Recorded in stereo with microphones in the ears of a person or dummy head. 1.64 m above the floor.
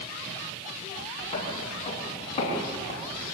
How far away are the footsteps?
About 8.5 m.